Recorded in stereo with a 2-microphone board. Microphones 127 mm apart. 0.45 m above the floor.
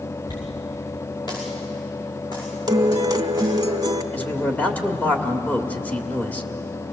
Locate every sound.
0.3 s a dropped coin: 35° left (ahead or behind), 6 m
2.7 s a guitar: 30° right (ahead or behind), 1.0 m
4.1 s a man speaking: 10° left (ahead or behind), 1.5 m